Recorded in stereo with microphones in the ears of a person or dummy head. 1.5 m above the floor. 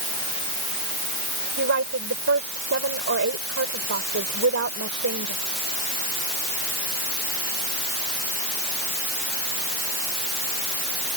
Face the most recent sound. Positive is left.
turn(degrees=-65)  # may be behind; listen again after turning